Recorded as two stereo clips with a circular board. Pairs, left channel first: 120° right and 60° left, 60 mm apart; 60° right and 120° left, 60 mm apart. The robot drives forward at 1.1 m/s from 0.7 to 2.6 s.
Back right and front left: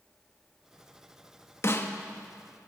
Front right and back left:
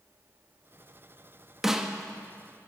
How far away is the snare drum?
About 0.9 m.